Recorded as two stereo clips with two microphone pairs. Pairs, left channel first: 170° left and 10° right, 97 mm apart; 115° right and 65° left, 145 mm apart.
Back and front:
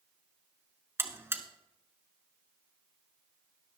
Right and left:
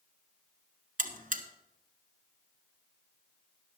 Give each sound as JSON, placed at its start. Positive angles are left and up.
{"t": 1.0, "sound": "a buzzer", "azimuth_deg": 55, "distance_m": 1.2}